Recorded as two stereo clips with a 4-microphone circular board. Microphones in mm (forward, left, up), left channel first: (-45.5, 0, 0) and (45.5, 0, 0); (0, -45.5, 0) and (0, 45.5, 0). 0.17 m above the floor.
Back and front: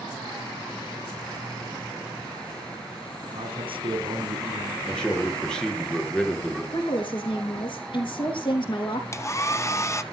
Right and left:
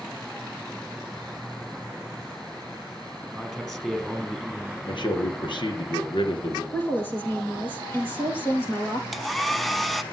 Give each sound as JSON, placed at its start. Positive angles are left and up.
{"t": 3.3, "sound": "a man speaking", "azimuth_deg": -5, "distance_m": 3.0}
{"t": 4.9, "sound": "a man speaking", "azimuth_deg": -100, "distance_m": 3.0}
{"t": 6.7, "sound": "a woman speaking", "azimuth_deg": -155, "distance_m": 5.5}
{"t": 9.1, "sound": "a hair dryer", "azimuth_deg": 180, "distance_m": 1.0}